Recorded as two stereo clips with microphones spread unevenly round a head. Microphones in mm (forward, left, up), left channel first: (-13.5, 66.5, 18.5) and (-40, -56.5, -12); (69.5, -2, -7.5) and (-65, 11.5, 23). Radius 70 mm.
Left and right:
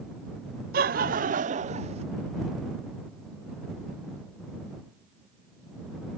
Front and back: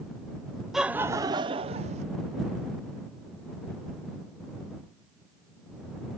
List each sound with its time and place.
0.7 s laughter: 95° right; by 2.0 s 140° right